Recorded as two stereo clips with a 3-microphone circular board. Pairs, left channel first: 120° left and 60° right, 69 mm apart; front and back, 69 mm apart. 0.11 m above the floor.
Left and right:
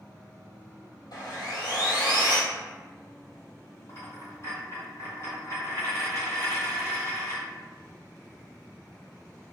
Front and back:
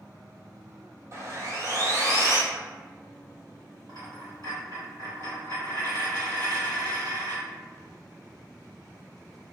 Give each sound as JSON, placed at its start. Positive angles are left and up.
{"t": 1.1, "sound": "sawing", "azimuth_deg": 135, "distance_m": 0.8}
{"t": 3.9, "sound": "a dropped coin", "azimuth_deg": 160, "distance_m": 1.6}